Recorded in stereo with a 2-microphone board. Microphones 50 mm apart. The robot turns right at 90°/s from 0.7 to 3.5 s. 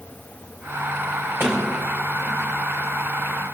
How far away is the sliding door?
About 4.5 m.